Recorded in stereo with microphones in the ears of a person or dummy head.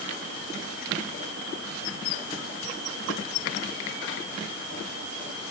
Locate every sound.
Only background noise.